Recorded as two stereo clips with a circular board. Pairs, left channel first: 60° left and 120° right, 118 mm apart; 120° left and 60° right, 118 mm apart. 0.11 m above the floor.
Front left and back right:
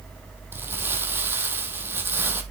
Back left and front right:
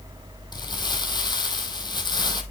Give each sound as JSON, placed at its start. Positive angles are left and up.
{"t": 0.5, "sound": "crumpling", "azimuth_deg": 170, "distance_m": 0.8}